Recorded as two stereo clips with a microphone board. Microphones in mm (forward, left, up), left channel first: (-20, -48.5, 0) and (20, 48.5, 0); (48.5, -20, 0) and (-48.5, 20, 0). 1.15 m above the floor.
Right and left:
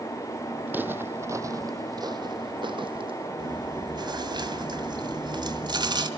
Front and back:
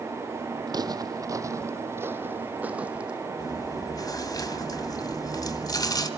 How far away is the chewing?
About 2 m.